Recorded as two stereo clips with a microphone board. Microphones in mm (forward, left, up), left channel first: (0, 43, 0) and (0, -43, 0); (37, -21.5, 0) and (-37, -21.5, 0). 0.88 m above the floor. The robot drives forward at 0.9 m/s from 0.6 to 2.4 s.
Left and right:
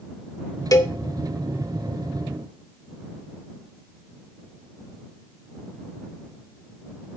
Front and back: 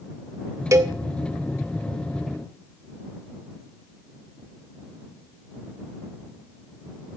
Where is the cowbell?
135° left, 0.8 m; by 0.9 s 145° left, 0.9 m.